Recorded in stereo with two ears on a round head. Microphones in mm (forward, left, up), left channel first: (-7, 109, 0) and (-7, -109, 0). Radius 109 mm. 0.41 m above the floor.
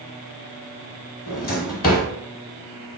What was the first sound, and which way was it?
A drawer, 35° left (ahead or behind).